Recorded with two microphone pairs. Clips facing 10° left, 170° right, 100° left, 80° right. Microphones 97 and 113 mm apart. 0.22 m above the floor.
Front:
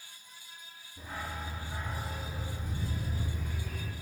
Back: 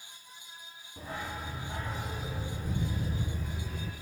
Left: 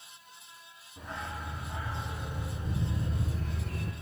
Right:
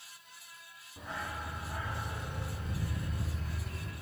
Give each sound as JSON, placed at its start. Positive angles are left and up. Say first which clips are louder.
{"t": 1.0, "sound": "a dog barking", "louder": "back 1 dB, left 1 dB", "azimuth_deg": -165, "distance_m": 2.5}